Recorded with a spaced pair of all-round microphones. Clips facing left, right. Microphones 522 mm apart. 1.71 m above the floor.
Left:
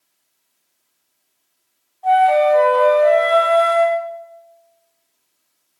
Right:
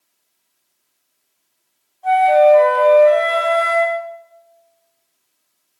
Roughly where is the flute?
Centre.